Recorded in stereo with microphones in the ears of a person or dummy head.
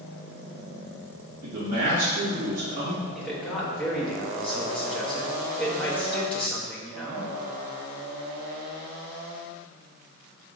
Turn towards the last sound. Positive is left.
turn(degrees=5)  # may be behind; listen again after turning